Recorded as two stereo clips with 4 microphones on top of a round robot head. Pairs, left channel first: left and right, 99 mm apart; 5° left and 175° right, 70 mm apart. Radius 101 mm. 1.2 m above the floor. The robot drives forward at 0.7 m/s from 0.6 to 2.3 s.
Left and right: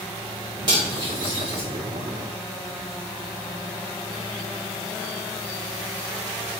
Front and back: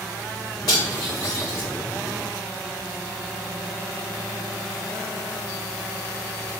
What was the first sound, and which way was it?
Cutlery clinking, 40° right.